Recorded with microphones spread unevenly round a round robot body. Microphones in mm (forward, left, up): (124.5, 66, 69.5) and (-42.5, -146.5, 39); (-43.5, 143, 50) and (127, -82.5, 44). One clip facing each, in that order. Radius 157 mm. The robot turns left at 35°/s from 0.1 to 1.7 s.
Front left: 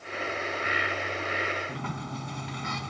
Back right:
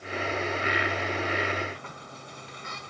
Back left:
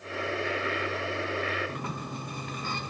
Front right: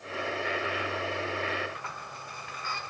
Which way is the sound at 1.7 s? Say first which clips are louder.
Front left 7 dB, back left 9 dB; 80° left.